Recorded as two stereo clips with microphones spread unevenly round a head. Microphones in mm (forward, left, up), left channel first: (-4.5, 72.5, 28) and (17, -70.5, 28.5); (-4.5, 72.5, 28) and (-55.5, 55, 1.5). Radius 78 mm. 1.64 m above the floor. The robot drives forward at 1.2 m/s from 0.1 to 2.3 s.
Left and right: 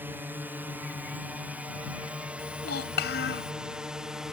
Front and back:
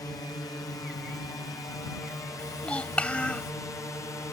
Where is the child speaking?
80° left.